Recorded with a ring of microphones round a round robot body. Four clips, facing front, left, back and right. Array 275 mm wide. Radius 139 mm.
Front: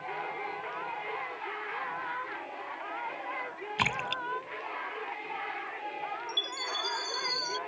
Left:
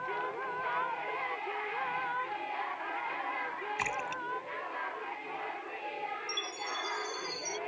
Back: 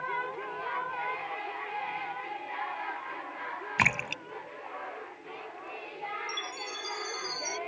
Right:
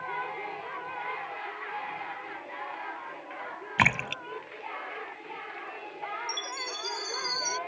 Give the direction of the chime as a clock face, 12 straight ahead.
2 o'clock.